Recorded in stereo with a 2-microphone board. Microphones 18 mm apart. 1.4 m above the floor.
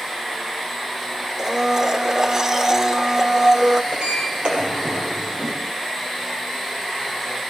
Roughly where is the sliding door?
Right.